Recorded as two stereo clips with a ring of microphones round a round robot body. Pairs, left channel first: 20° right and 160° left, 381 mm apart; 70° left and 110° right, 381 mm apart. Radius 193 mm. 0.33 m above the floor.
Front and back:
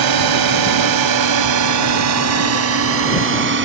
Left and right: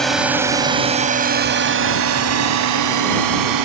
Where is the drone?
155° left; by 3.6 s 145° right.